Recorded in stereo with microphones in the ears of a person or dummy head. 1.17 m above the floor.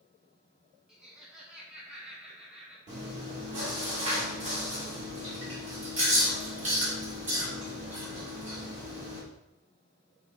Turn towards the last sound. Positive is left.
turn(degrees=-35)  # may be behind; listen again after turning